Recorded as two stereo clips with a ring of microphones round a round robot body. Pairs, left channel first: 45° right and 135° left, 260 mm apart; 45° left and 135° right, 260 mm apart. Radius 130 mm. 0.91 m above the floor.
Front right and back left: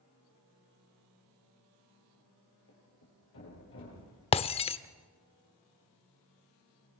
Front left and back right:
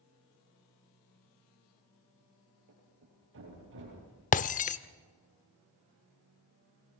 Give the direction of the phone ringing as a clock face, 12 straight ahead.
No phone ringing in this recording.